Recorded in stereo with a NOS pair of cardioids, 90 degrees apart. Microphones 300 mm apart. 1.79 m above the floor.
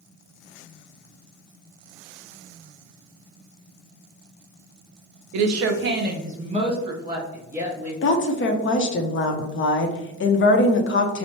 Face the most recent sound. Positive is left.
turn(degrees=45)